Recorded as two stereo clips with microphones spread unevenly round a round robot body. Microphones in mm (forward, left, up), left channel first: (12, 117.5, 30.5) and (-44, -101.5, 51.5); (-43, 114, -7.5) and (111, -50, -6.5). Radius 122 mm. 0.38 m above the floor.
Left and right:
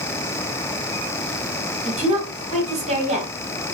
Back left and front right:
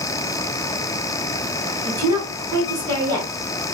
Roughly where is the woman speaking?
Right.